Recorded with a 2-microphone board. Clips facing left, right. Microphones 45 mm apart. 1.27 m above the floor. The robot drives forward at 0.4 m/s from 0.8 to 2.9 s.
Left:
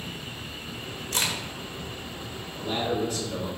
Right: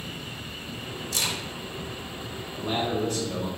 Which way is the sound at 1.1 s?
40° left (ahead or behind).